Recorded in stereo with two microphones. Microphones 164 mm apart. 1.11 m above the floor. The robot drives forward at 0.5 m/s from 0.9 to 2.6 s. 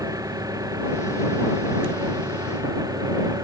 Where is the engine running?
20° right (ahead or behind).